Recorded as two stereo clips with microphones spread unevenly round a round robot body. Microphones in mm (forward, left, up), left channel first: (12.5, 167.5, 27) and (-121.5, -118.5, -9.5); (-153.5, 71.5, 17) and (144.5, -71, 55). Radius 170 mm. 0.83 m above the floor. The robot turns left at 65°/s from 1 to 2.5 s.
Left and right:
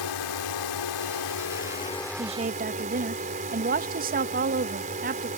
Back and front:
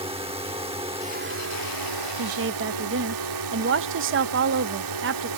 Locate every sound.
0.0 s a drone: 50° left; by 5.4 s 50° right
2.2 s a woman speaking: 55° right; by 5.3 s 75° right